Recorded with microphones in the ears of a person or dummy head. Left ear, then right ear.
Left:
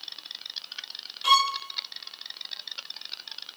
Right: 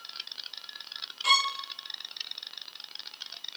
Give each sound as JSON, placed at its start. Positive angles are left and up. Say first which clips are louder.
{"t": 1.2, "sound": "a violin", "louder": "left 3 dB", "side_deg": 5, "distance_m": 0.9}